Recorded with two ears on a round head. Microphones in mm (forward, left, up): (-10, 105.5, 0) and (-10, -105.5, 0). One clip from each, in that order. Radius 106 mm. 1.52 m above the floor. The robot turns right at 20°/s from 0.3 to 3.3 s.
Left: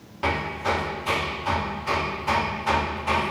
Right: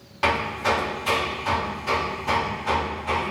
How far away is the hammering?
About 2.5 m.